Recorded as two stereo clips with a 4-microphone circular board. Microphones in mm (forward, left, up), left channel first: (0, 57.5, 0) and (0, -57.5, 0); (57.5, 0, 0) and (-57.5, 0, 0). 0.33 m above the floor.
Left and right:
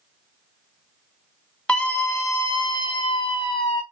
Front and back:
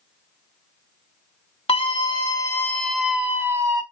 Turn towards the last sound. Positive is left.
turn(degrees=125)